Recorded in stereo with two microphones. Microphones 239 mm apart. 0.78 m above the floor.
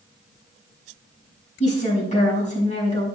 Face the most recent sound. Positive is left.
turn(degrees=30)  # may be behind; listen again after turning